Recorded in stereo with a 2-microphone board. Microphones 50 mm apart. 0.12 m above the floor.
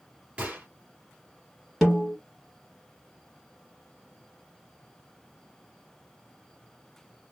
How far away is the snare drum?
About 2.5 m.